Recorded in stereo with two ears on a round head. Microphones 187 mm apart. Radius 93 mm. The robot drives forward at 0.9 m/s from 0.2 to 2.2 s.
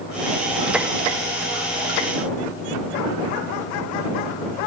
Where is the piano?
No piano in this recording.